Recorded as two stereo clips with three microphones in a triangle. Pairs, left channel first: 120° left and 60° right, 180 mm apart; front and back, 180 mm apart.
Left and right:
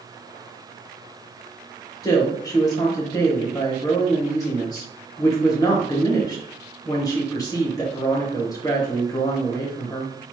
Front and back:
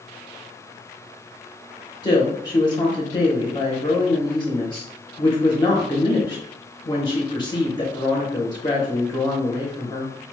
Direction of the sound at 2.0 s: 55° left.